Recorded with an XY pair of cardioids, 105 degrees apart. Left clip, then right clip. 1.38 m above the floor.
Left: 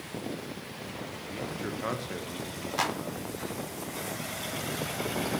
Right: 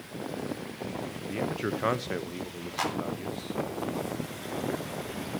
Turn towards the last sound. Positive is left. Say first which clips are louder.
# left 1 dB
turn(degrees=15)